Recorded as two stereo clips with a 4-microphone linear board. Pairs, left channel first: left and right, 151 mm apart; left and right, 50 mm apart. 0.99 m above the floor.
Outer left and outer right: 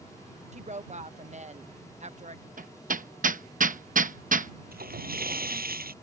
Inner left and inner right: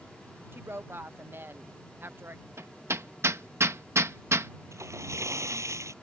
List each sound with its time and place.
0.5 s a woman speaking: 50° right (ahead or behind)
2.6 s hammering: 60° right (ahead or behind)
4.7 s a splash: 80° right